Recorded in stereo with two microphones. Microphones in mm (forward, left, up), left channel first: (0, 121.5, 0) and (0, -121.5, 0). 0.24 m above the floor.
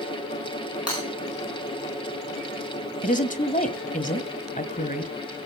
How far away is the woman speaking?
About 1.5 m.